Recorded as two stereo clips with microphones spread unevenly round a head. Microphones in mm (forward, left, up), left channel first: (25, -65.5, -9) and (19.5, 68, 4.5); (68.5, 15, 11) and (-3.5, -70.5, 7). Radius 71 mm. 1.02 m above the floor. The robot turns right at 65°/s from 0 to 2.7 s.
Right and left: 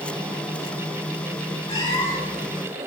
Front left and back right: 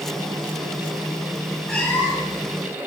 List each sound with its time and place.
1.7 s a cat meowing: 40° right, 3 m; by 2.4 s 10° left, 3 m